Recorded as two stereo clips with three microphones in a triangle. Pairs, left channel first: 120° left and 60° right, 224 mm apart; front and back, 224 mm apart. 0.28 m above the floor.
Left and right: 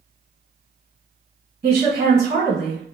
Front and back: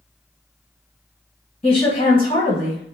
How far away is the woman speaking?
About 1.5 m.